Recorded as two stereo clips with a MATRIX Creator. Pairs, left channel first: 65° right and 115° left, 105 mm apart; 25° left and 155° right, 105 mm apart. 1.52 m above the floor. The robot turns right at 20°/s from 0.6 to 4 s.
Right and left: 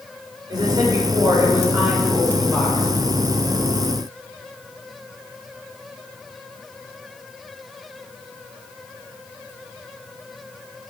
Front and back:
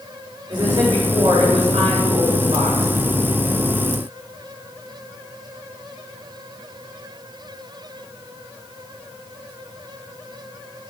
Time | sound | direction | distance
0.5 | a woman speaking | 160° left | 6 m